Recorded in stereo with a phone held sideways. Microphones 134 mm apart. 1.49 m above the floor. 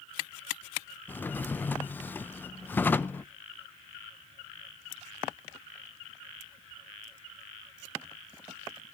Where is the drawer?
15° left (ahead or behind), 0.5 m.